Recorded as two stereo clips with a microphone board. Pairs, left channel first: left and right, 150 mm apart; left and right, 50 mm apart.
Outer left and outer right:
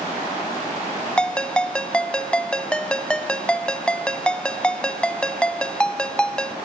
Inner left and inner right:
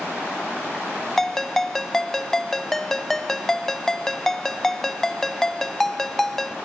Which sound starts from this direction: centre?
A ringtone, at 1.2 s.